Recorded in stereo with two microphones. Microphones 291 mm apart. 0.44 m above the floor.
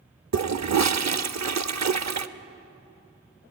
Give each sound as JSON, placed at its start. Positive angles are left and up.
{"t": 0.3, "sound": "a toilet flushing", "side_deg": -65, "distance_m": 0.6}